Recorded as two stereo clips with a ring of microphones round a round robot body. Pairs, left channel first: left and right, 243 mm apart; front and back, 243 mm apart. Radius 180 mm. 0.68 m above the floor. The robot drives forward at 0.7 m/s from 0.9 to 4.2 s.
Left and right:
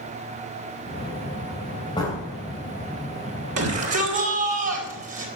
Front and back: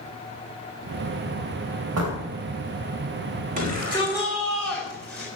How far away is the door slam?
About 3.5 m.